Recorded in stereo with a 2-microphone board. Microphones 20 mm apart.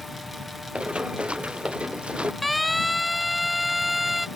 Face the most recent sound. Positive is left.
turn(degrees=-5)  # may be behind; listen again after turning